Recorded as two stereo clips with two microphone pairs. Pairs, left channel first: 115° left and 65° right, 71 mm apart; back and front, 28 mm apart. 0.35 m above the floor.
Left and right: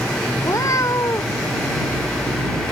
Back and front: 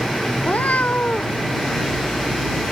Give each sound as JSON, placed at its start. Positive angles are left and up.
{"t": 0.4, "sound": "a cat meowing", "azimuth_deg": 155}